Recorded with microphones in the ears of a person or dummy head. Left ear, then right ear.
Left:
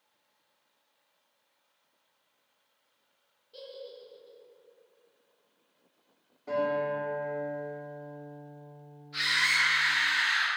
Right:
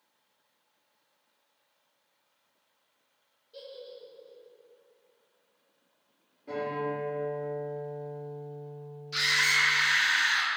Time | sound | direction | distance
3.5 | a giggle | centre (ahead or behind) | 0.6 m
6.5 | a guitar | 45° left (ahead or behind) | 1.5 m
9.1 | a scream | 80° right | 0.8 m